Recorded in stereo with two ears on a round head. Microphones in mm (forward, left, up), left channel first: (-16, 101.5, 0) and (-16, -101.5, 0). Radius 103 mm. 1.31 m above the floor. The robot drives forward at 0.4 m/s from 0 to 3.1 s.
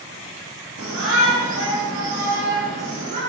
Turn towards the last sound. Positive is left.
turn(degrees=-55)  # may be behind; listen again after turning